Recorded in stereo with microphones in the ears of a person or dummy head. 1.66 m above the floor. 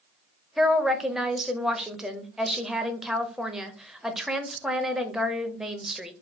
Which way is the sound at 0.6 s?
10° right (ahead or behind).